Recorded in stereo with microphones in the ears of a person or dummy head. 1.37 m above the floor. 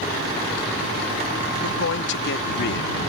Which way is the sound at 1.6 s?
75° left (ahead or behind).